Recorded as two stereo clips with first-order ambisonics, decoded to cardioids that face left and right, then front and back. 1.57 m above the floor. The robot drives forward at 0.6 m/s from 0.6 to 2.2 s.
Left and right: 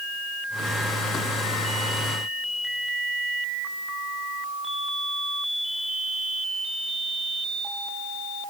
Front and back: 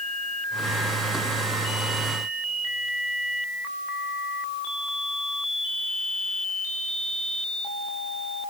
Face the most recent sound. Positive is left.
No sound to turn to.